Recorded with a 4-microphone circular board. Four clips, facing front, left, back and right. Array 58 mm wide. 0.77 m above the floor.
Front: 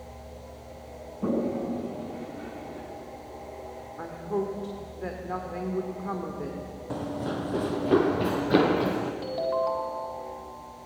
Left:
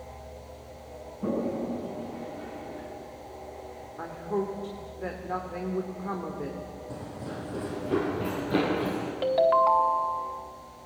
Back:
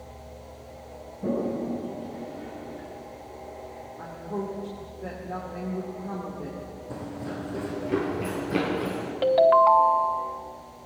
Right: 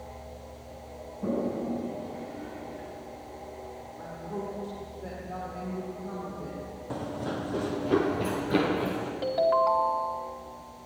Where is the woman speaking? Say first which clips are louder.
Left 7 dB, front 3 dB; 50° left, 2.5 m.